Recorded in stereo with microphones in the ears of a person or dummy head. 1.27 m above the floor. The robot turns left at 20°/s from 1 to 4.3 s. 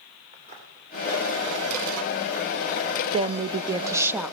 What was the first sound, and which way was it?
Footsteps, 40° right (ahead or behind).